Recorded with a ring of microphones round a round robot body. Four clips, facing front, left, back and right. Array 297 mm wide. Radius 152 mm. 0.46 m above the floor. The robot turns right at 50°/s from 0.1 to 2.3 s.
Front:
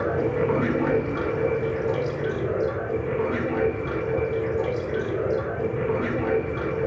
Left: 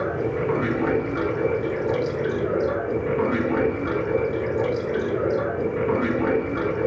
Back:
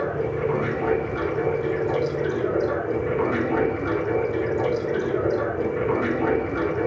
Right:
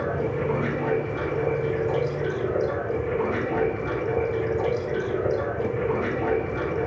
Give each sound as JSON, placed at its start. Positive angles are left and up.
{"t": 0.0, "sound": "running water", "azimuth_deg": 0, "distance_m": 7.5}